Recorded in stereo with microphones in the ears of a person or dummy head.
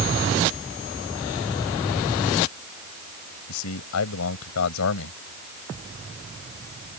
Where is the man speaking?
85° left.